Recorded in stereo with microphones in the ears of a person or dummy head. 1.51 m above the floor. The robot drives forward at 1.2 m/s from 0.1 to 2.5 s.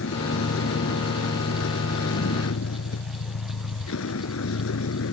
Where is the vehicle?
70° left (ahead or behind); by 5.1 s 80° left.